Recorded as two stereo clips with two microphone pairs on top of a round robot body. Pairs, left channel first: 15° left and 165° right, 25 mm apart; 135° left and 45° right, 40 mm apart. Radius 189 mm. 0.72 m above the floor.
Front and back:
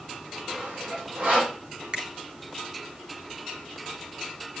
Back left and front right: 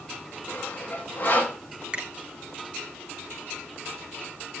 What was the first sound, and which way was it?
Sawing, 170° left.